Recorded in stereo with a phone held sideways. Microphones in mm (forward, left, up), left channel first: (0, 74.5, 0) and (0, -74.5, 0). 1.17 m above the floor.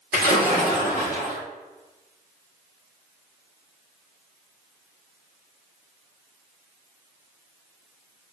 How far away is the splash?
About 2 m.